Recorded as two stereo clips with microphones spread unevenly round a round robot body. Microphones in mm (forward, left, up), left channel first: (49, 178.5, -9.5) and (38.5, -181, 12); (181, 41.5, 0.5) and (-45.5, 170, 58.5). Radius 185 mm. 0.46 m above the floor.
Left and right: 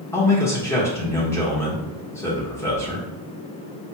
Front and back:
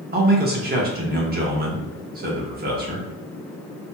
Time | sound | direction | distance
0.1 | a man speaking | 150° left | 0.8 m